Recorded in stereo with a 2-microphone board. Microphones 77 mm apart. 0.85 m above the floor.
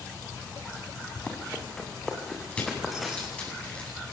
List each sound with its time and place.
1.1 s running footsteps: 15° left (ahead or behind), 4 m; by 3.5 s 5° right (ahead or behind), 4.5 m
2.5 s crushing: 15° left (ahead or behind), 8.5 m